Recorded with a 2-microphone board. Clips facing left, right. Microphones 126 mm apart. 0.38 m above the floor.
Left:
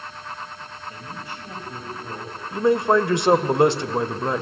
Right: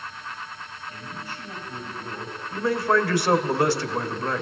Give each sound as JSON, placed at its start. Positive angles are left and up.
{"t": 0.9, "sound": "a man speaking", "side_deg": 25, "distance_m": 9.0}
{"t": 2.5, "sound": "a man speaking", "side_deg": 20, "distance_m": 1.1}